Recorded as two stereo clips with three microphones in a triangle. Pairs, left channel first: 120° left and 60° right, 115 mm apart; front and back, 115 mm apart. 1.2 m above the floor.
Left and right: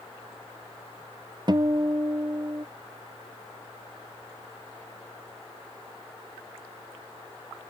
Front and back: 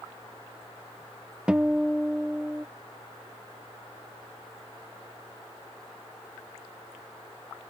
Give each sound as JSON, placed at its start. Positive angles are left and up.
{"t": 1.5, "sound": "a guitar", "azimuth_deg": -100}